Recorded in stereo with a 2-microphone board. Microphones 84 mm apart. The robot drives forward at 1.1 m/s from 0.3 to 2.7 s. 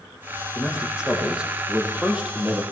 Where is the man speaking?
10° right (ahead or behind), 6.5 m; by 2.6 s 15° right (ahead or behind), 4.5 m.